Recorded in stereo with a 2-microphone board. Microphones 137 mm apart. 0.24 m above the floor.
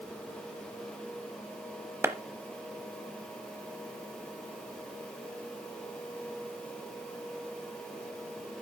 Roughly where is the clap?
Centre.